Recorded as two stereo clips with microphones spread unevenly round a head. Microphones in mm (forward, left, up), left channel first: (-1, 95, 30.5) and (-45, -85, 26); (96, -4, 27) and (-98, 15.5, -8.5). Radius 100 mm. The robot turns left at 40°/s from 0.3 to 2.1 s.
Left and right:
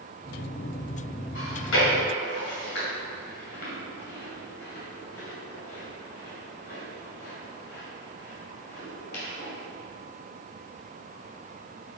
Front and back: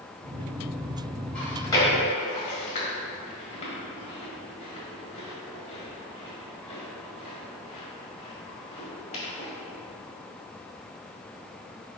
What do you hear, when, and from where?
1.4 s chewing: 70° left, 2.0 m; by 9.5 s 40° left, 2.0 m